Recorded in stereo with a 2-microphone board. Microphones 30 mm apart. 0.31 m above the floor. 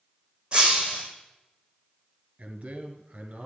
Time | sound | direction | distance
0.5 | breaking glass | 30° right (ahead or behind) | 3.5 m
2.4 | a man speaking | 50° right (ahead or behind) | 2 m